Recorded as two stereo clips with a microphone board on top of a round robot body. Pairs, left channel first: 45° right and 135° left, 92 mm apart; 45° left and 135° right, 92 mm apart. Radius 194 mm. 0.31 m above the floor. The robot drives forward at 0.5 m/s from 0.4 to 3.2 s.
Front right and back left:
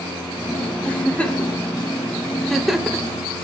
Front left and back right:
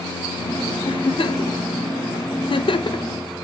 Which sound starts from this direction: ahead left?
A giggle, at 0.8 s.